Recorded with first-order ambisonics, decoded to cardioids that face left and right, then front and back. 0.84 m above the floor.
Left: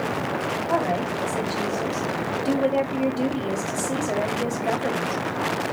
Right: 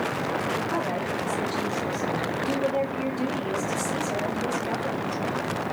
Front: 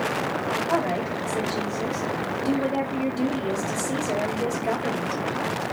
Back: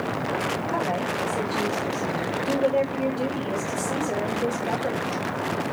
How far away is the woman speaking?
About 2 m.